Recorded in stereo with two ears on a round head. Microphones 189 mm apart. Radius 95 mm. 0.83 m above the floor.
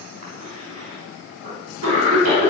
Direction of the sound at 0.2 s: 75° right (ahead or behind).